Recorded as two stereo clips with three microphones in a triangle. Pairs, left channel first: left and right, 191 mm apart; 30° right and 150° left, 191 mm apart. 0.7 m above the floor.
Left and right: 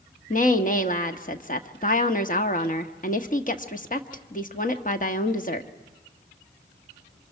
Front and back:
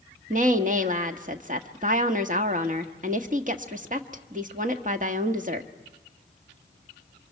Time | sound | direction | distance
0.3 | a woman speaking | 120° left | 1.2 m